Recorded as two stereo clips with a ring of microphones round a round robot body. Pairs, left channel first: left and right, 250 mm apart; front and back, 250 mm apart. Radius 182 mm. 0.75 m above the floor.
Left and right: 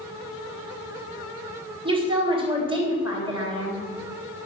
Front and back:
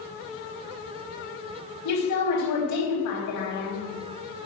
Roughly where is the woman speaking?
Ahead.